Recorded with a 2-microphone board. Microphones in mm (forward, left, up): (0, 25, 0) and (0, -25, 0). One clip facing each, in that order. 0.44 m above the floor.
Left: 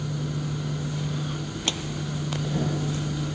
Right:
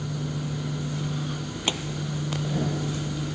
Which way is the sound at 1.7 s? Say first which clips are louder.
Right 2 dB; 20° right (ahead or behind).